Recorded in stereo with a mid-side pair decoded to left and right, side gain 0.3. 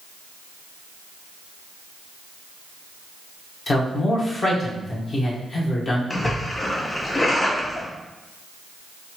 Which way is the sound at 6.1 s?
35° left.